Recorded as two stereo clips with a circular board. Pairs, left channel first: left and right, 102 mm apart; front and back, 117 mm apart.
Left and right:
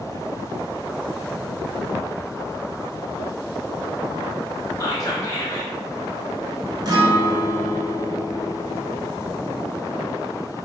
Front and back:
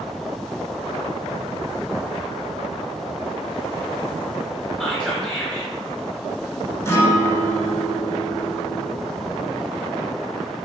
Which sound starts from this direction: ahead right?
A guitar, at 6.8 s.